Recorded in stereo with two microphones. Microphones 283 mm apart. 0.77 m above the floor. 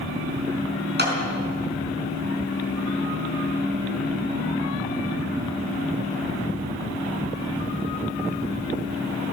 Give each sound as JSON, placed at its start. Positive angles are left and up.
{"t": 1.0, "sound": "a clap", "side_deg": -35, "distance_m": 5.5}